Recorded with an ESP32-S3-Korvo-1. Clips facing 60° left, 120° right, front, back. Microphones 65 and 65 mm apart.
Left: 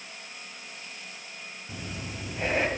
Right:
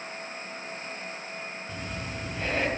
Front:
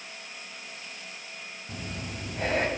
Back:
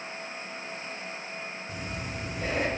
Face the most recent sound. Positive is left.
turn(degrees=-15)